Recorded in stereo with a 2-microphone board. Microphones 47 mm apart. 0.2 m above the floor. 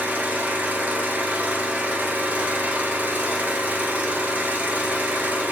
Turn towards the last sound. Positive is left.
turn(degrees=-35)  # may be behind; listen again after turning